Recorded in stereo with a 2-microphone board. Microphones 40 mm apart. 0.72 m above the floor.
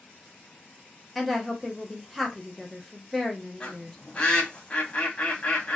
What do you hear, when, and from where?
1.1 s a woman speaking: centre (ahead or behind), 0.8 m
3.6 s a bird: 25° left (ahead or behind), 0.9 m